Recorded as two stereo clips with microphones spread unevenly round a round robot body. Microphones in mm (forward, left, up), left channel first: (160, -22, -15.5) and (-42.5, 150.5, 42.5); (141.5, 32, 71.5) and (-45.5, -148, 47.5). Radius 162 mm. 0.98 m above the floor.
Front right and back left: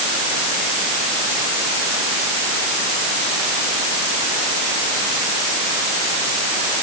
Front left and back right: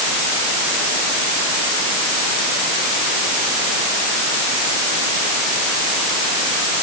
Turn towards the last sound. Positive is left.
No sound to turn to.